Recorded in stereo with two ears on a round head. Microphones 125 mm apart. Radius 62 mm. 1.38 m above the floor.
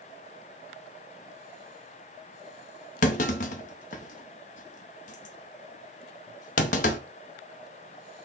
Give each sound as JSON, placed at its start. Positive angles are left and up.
{"t": 3.0, "sound": "a clunk", "side_deg": 60, "distance_m": 0.7}